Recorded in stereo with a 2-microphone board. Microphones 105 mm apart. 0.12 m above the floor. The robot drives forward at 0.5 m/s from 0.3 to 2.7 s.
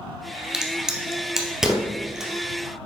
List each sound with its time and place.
0.5 s a crack: 5° right (ahead or behind), 1.1 m